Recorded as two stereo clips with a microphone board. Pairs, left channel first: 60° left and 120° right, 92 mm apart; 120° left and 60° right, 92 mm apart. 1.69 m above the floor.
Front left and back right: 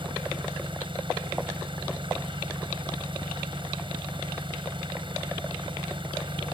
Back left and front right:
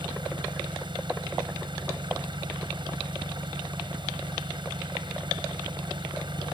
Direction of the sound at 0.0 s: 95° right.